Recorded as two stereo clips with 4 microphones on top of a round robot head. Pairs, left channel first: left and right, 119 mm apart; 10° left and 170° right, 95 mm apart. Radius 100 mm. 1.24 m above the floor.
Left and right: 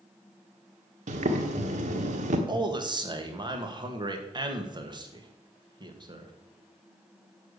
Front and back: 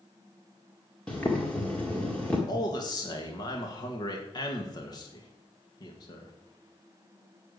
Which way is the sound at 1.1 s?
70° right.